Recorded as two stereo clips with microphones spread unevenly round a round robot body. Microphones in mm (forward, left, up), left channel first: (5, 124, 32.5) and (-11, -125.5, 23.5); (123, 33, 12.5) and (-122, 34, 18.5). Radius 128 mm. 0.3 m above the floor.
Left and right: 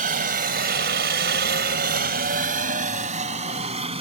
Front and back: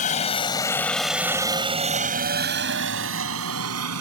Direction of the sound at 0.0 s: 50° right.